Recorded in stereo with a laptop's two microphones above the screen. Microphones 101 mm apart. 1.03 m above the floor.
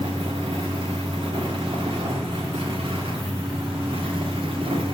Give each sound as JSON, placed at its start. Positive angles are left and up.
{"t": 0.0, "sound": "a fan", "side_deg": -60, "distance_m": 1.6}